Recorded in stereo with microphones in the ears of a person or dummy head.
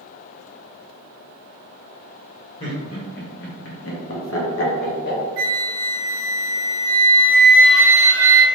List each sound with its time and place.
2.6 s laughter: 30° left (ahead or behind), 0.9 m; by 5.2 s 55° left (ahead or behind), 1.1 m
5.4 s a flute: 65° right (ahead or behind), 0.5 m